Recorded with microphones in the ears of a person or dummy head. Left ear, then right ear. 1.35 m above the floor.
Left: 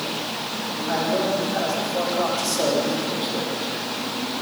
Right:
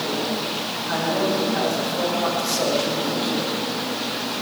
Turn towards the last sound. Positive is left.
turn(degrees=85)